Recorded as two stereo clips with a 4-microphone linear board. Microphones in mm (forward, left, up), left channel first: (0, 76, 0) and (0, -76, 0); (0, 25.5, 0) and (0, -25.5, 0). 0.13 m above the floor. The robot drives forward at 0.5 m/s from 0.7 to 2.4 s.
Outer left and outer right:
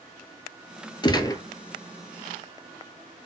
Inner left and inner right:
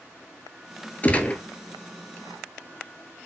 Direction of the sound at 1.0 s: 30° left (ahead or behind).